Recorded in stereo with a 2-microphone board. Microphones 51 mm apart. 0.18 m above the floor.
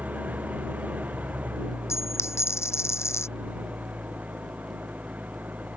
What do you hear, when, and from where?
0.0 s an engine running: 35° right (ahead or behind)
1.9 s a dropped coin: 65° left (ahead or behind)